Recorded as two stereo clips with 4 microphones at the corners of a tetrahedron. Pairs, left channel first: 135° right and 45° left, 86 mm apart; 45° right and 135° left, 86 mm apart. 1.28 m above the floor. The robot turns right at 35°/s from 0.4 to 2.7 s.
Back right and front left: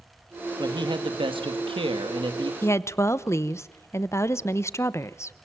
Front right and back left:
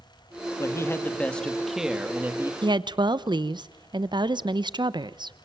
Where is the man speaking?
5° left, 2.5 m; by 2.5 s 75° left, 2.5 m.